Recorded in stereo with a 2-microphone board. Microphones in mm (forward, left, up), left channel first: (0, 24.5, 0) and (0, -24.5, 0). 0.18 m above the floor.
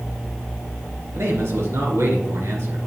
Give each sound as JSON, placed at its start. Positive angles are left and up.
{"t": 1.1, "sound": "a man speaking", "side_deg": -65, "distance_m": 3.0}